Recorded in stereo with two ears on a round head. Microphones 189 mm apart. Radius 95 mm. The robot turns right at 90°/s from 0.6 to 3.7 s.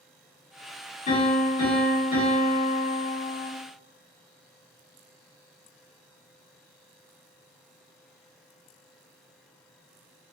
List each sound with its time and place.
1.1 s a piano: 40° left, 1.8 m; by 3.5 s 100° right, 1.8 m